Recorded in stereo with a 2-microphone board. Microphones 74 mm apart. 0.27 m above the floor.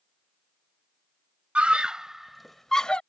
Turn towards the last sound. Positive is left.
turn(degrees=15)  # may be behind; listen again after turning